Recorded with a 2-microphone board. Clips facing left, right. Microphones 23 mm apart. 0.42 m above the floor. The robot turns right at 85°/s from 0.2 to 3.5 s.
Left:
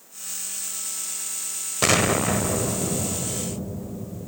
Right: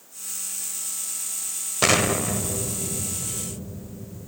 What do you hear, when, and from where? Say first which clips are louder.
1.8 s an explosion: left 1 dB; 10° right, 0.6 m; by 4.3 s 135° left, 0.6 m